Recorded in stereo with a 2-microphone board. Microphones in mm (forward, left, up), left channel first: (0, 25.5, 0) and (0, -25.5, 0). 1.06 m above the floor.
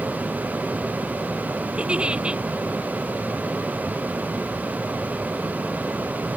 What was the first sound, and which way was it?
A giggle, 20° right (ahead or behind).